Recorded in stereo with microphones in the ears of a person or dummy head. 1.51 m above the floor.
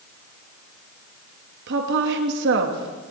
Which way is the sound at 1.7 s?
70° right (ahead or behind).